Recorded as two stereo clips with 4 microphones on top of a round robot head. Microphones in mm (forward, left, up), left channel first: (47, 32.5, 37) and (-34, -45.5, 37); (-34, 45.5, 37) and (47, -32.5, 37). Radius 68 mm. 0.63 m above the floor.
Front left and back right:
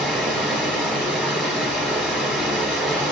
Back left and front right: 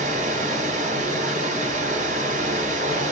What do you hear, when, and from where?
0.0 s running water: 50° right, 1.2 m